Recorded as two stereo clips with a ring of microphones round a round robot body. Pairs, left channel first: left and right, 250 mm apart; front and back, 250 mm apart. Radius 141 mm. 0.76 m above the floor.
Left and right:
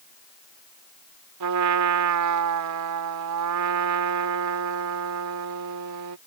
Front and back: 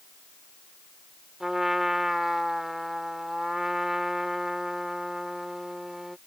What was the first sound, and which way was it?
A trumpet, 90° right.